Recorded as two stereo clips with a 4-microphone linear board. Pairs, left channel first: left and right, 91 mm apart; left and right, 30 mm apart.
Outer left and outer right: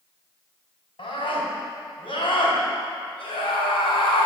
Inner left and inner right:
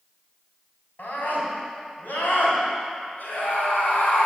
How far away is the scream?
About 3.5 m.